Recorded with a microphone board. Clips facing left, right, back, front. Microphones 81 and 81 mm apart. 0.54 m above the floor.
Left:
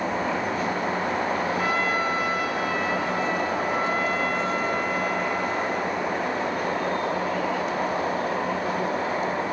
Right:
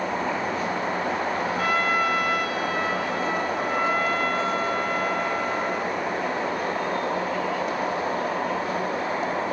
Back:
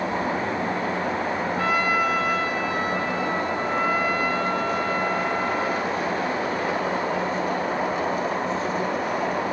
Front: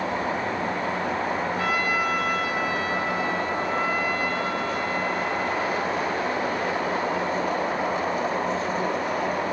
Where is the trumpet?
130° right, 5.5 m.